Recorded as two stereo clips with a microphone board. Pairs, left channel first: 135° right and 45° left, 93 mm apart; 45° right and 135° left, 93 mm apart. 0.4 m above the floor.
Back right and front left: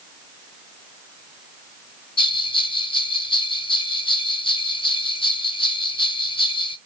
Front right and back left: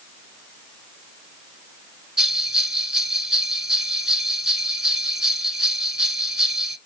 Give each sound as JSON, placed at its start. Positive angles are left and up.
{"t": 2.2, "sound": "a bell", "azimuth_deg": -140, "distance_m": 0.7}